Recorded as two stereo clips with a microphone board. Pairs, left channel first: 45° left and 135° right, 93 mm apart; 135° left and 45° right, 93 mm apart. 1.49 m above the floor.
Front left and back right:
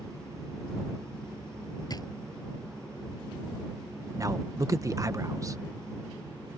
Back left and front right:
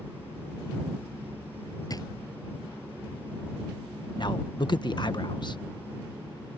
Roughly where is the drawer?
Left.